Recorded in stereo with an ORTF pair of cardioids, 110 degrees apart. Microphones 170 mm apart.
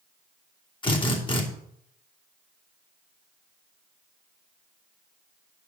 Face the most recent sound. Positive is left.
turn(degrees=30)